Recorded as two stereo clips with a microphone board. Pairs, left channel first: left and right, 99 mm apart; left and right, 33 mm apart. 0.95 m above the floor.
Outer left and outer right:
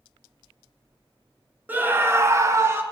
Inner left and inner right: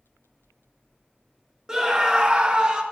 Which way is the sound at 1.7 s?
20° right (ahead or behind).